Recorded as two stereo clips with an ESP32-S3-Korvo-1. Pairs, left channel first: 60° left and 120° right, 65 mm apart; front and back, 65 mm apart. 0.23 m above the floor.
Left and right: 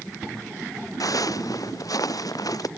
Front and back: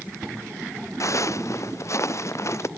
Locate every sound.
1.0 s footsteps: 35° left; by 2.7 s 40° left